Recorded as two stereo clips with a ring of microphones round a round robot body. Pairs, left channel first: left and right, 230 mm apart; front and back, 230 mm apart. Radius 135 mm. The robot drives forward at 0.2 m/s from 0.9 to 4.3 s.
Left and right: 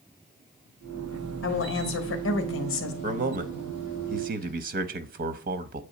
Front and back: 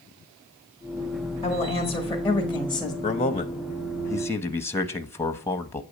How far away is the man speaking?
About 0.8 m.